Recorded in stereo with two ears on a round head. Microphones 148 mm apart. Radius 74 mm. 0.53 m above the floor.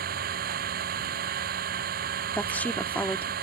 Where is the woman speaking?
10° left (ahead or behind).